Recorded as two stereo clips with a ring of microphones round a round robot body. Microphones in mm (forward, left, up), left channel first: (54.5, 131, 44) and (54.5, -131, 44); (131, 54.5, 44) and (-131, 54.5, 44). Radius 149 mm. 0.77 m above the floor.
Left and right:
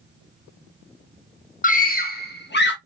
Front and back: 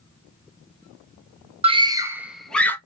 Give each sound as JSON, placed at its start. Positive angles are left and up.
{"t": 1.6, "sound": "a scream", "azimuth_deg": 125, "distance_m": 1.0}